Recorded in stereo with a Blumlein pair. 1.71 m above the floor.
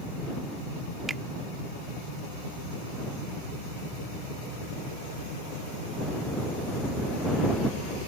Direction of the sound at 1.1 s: 15° right.